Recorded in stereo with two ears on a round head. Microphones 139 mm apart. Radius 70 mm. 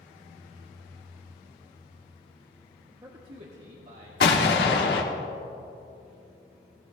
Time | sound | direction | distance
2.9 | a man speaking | 10° right (ahead or behind) | 1.2 m
4.2 | an explosion | 70° left (ahead or behind) | 1.4 m